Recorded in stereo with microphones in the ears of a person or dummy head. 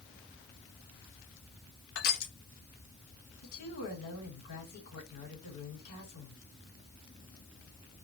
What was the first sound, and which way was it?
Crushing, 60° left (ahead or behind).